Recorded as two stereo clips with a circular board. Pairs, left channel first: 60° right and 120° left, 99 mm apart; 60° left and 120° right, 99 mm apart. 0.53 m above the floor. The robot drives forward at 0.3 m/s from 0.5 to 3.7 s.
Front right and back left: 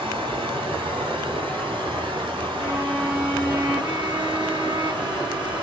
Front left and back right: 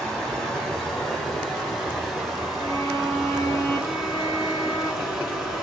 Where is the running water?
145° left, 2 m; by 5.6 s 160° left, 3 m.